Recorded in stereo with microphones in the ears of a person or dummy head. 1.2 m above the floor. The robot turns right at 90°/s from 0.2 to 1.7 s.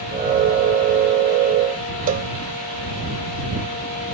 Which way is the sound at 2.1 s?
50° right (ahead or behind).